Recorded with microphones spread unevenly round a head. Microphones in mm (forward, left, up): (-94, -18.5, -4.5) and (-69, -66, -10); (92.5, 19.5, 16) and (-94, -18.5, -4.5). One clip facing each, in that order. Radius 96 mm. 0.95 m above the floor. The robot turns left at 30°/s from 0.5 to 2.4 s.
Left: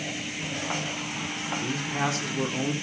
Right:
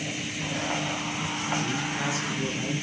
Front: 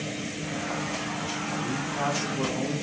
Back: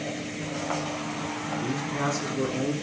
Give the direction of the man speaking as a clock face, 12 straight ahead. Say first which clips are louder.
Left 1 dB, back 2 dB; 7 o'clock.